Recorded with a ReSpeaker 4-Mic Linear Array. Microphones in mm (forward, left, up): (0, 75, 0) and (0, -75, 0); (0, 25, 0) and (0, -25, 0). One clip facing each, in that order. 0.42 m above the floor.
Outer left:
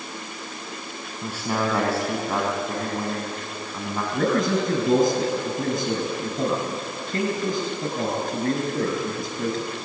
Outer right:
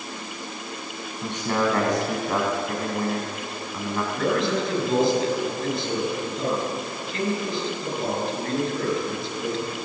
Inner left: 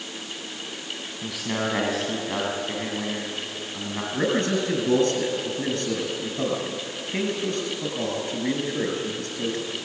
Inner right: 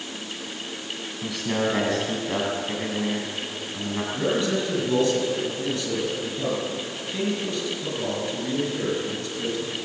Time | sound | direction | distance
1.2 | a man speaking | 5° left (ahead or behind) | 3.5 m
4.1 | a man speaking | 50° left (ahead or behind) | 6 m